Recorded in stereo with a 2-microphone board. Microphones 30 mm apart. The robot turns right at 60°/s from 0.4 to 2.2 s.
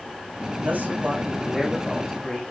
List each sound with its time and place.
0.6 s a man speaking: 75° right, 8.5 m; by 2.4 s 20° left, 8.5 m